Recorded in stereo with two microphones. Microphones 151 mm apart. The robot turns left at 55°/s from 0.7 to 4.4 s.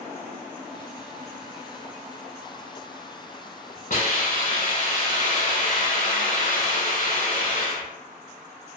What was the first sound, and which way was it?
A hiss, 65° left (ahead or behind).